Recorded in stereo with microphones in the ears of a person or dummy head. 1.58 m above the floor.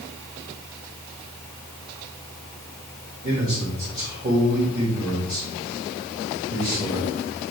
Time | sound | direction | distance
3.2 | a man speaking | 45° right (ahead or behind) | 3 m